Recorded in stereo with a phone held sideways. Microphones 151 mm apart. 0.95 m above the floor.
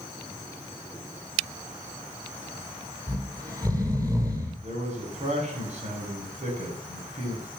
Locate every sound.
3.1 s snoring: 25° right (ahead or behind), 5.5 m
4.6 s a man speaking: 50° right (ahead or behind), 6.5 m